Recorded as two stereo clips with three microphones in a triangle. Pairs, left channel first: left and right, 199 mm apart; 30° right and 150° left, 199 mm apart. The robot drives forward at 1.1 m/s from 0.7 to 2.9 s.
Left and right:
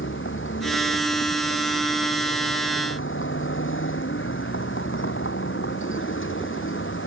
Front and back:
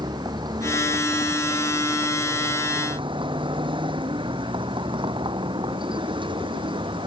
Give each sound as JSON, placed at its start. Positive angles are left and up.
{"t": 0.0, "sound": "a vehicle", "azimuth_deg": 80}